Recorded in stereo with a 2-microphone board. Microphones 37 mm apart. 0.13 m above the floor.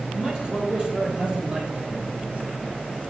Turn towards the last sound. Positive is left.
turn(degrees=-35)  # may be behind; listen again after turning